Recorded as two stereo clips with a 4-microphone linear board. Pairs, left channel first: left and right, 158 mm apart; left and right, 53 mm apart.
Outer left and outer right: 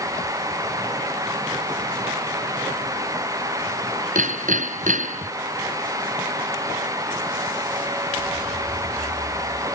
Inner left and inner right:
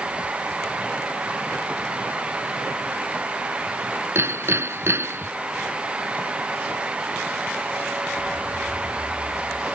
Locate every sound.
4.2 s hammering: 55° right (ahead or behind)